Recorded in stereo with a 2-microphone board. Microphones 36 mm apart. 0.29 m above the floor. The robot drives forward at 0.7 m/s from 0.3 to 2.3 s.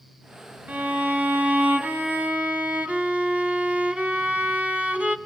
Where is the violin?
55° right (ahead or behind), 1.2 m; by 5.2 s 45° right (ahead or behind), 1.3 m.